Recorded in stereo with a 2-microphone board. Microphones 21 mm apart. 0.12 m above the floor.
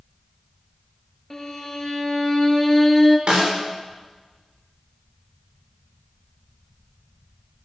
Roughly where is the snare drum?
Right.